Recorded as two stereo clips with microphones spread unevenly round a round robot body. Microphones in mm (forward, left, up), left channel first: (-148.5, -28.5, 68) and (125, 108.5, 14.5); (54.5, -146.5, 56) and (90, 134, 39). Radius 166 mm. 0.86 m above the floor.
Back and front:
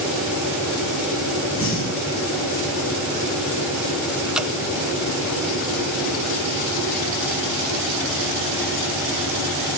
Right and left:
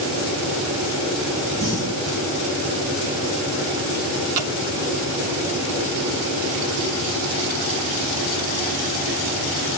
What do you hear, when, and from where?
1.6 s breathing: 160° left, 3.5 m
4.3 s dripping: 115° left, 1.2 m